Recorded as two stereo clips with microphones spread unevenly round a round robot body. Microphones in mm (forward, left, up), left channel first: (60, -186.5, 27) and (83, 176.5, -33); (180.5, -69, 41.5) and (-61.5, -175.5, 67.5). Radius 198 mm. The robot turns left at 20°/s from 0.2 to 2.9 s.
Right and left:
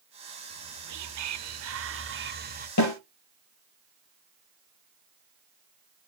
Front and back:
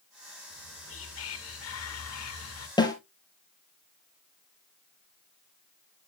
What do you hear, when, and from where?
0.5 s whispering: 65° left, 1.7 m; by 2.7 s 25° left, 1.7 m
2.8 s a snare drum: 50° right, 4 m; by 2.9 s 55° right, 4 m